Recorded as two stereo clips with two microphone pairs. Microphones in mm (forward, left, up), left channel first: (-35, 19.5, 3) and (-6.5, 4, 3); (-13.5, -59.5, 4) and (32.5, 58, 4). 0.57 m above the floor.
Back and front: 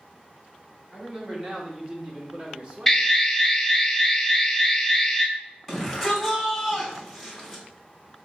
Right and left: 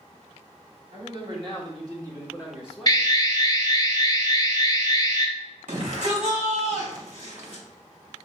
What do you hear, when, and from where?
0.9 s a man speaking: 40° left, 1.7 m; by 3.2 s 45° right, 1.1 m
2.9 s an alarm: 130° right, 1.1 m
5.7 s a shout: 70° left, 2 m